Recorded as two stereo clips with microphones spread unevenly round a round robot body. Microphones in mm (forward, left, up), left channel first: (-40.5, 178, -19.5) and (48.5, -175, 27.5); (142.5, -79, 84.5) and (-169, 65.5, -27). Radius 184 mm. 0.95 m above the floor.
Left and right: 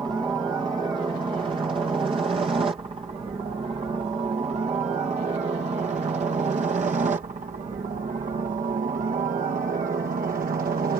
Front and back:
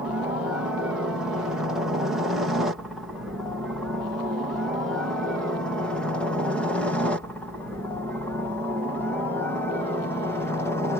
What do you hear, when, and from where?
0.0 s a helicopter: 155° right; by 11.0 s 135° right